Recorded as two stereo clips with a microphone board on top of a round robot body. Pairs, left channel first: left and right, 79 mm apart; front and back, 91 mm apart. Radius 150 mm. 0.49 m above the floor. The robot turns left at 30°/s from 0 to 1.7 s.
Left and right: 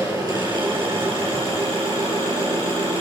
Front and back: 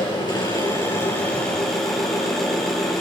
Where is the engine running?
35° right, 4.5 m; by 3.0 s 85° right, 4.5 m.